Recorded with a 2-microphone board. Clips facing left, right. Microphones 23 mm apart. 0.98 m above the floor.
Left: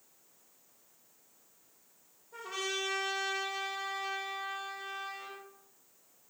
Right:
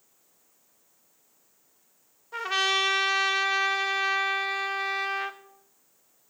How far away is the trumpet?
About 1.0 m.